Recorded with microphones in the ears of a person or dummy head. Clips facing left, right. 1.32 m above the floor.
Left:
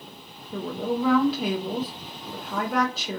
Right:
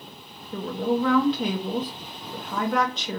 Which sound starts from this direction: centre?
A woman speaking, at 0.5 s.